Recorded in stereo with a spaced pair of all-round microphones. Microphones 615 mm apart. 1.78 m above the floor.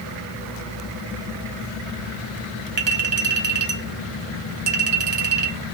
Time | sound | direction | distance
2.8 | a clink | 40° right (ahead or behind) | 1.6 m